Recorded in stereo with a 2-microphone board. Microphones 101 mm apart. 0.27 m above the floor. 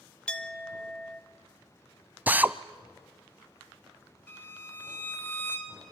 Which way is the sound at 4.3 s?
20° left (ahead or behind).